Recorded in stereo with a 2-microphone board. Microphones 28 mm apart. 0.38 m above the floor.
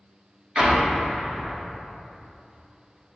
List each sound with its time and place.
0.6 s an explosion: 35° right (ahead or behind), 1.0 m